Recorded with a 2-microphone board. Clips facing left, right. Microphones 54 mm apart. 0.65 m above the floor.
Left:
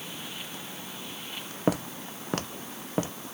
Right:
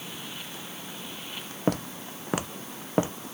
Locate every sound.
1.7 s footsteps: 5° left (ahead or behind); by 3.1 s 25° right (ahead or behind)